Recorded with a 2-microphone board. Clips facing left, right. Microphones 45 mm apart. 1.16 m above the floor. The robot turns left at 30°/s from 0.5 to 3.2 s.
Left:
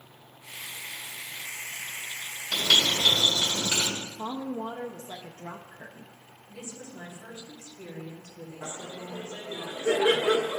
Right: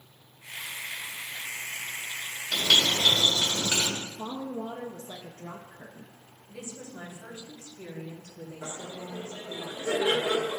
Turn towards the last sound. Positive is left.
turn(degrees=40)  # may be behind; listen again after turning